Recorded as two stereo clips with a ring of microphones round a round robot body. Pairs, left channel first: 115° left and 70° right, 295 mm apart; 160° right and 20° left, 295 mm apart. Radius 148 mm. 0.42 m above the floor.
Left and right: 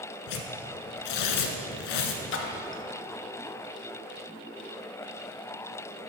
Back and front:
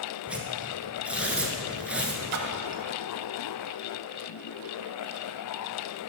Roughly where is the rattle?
No rattle in this recording.